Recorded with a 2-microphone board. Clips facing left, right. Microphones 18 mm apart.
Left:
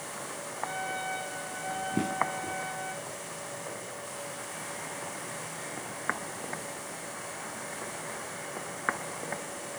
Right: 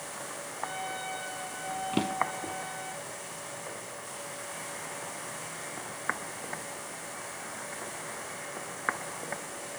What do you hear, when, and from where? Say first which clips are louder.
0.6 s a trumpet: left 2 dB; 15° right (ahead or behind), 6.5 m
1.9 s a drawer: right 1 dB; 85° right, 2.5 m